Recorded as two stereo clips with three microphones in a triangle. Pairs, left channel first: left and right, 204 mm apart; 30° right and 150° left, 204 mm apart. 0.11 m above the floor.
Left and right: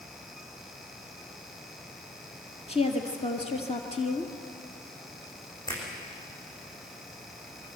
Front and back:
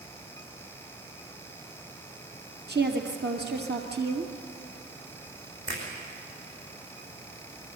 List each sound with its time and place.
2.7 s a woman speaking: 140° left, 2 m
5.7 s a finger snap: 160° left, 7 m